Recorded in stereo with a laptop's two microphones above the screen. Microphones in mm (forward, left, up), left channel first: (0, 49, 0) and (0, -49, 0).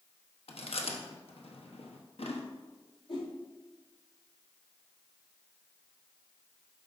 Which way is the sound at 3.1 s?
80° left.